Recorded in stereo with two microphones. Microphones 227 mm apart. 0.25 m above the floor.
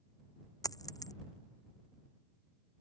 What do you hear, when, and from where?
0.6 s a dropped coin: 15° left (ahead or behind)